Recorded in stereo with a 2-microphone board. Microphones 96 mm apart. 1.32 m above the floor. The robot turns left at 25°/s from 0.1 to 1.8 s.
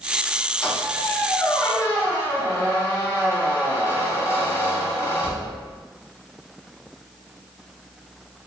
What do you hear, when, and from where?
0.6 s a squeak: 5° left (ahead or behind), 1.3 m; by 5.8 s 20° left (ahead or behind), 1.3 m